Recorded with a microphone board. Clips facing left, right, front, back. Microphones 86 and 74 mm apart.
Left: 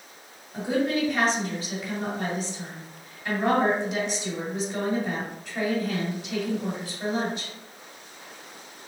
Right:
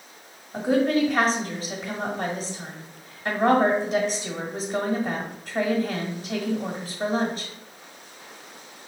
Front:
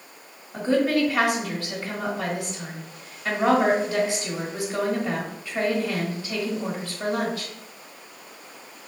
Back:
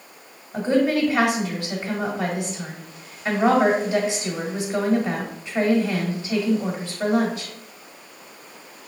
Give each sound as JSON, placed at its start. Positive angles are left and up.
{"t": 0.5, "sound": "a woman speaking", "azimuth_deg": -110, "distance_m": 1.3}